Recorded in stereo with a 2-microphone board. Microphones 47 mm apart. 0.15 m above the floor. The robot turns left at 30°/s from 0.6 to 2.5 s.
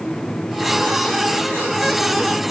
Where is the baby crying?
I don't hear a baby crying.